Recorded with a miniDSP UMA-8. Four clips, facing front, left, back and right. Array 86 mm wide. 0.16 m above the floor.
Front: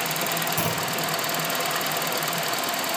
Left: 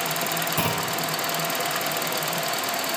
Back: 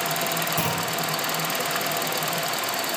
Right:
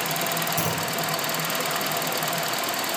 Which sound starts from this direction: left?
A clunk, at 0.6 s.